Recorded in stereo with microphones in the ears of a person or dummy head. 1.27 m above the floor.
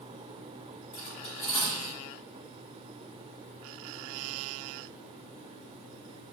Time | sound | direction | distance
0.9 | cutlery clinking | 40° left (ahead or behind) | 1.9 m